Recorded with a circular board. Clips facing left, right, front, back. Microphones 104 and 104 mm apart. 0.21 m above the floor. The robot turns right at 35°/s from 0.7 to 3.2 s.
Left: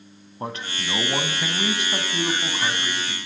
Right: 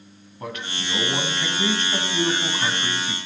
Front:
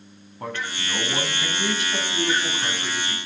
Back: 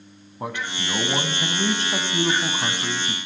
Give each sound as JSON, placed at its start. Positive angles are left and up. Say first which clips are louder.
{"t": 0.4, "sound": "a man speaking", "louder": "left 1 dB, back 1 dB", "azimuth_deg": 120, "distance_m": 1.7}